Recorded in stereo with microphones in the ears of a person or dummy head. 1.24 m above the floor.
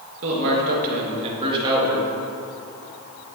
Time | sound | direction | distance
0.2 | a man speaking | 75° right (ahead or behind) | 1.4 m